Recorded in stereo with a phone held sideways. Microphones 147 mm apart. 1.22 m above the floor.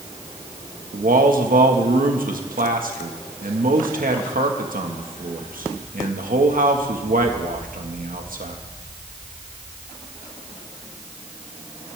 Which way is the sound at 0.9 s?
85° right.